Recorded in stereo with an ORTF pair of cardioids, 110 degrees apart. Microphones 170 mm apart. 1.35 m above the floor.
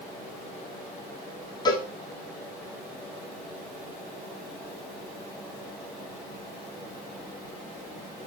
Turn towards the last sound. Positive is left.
turn(degrees=25)